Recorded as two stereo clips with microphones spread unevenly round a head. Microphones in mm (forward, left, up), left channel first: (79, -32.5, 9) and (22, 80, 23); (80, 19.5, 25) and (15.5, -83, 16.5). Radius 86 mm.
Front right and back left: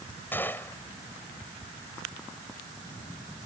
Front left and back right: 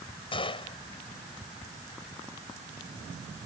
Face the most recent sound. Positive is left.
turn(degrees=15)